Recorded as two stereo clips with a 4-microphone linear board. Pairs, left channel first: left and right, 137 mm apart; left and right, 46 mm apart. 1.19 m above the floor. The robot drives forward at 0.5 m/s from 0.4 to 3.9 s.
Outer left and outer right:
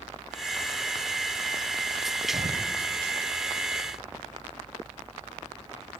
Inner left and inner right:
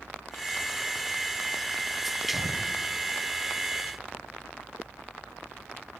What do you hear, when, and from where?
2.3 s an explosion: 35° right (ahead or behind), 2 m; by 2.7 s 40° right (ahead or behind), 2 m